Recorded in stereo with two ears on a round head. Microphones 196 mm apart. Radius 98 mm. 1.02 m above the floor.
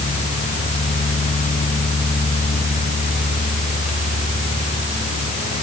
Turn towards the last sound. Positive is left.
No sound to turn to.